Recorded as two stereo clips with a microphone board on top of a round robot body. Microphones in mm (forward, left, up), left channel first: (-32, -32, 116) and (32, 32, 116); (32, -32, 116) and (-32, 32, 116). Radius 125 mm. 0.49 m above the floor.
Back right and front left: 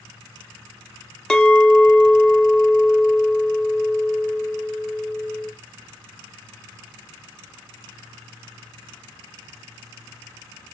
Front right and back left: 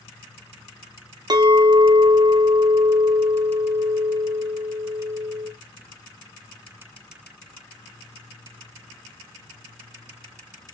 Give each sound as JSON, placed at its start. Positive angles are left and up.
{"t": 1.3, "sound": "a clink", "azimuth_deg": 145, "distance_m": 0.6}